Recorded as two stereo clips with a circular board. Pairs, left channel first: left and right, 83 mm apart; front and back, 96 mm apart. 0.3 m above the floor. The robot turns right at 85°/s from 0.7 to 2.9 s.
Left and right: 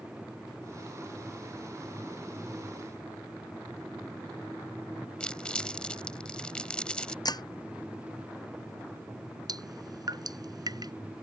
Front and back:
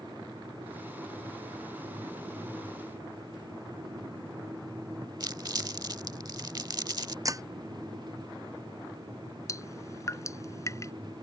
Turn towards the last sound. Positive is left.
turn(degrees=-55)